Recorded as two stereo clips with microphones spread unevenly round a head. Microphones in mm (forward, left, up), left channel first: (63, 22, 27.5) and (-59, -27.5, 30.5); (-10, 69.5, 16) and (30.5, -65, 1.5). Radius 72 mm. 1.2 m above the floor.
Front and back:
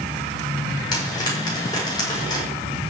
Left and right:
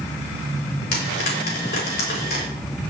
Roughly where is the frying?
Left.